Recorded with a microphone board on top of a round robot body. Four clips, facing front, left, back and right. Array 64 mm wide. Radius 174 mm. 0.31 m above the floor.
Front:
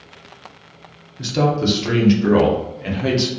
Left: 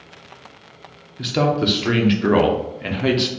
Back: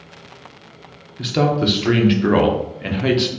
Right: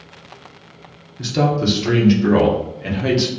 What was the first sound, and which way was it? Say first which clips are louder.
A man speaking: right 1 dB, back 1 dB; 130° left.